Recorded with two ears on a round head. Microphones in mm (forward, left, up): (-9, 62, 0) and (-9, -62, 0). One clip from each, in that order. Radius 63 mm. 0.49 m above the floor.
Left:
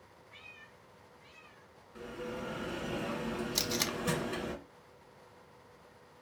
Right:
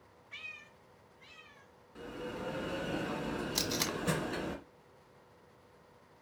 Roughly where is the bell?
Centre.